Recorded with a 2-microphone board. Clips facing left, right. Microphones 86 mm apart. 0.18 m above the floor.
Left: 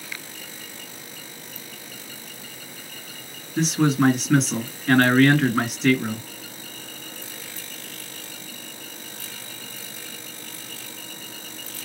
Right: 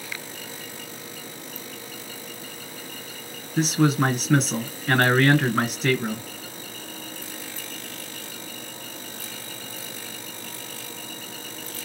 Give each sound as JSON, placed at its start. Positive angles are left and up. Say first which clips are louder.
{"t": 3.6, "sound": "a man speaking", "louder": "left 1 dB", "side_deg": -5, "distance_m": 2.0}